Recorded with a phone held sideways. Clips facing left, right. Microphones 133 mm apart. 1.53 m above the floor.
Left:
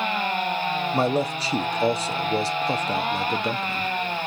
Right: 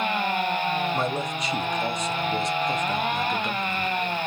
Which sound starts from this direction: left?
A man speaking, at 0.9 s.